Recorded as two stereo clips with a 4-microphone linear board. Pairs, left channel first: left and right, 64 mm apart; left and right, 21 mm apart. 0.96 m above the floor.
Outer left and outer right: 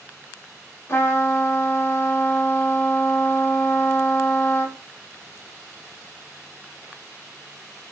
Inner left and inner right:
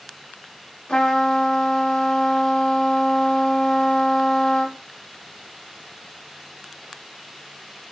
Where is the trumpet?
45° left (ahead or behind), 0.7 m.